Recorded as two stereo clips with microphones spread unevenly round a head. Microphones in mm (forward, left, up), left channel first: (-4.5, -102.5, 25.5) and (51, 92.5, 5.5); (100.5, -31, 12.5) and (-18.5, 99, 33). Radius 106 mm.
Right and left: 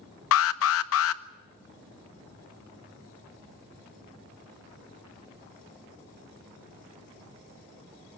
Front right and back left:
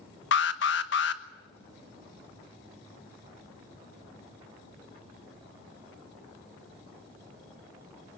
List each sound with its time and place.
0.3 s an alarm: 85° right, 1.1 m